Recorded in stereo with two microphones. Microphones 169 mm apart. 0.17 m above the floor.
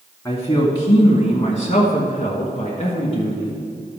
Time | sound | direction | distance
0.2 | a man speaking | 20° left (ahead or behind) | 1.3 m